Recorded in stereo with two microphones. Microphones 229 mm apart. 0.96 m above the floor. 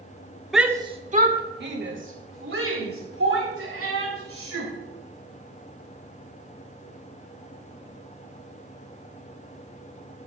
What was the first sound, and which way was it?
A shout, centre (ahead or behind).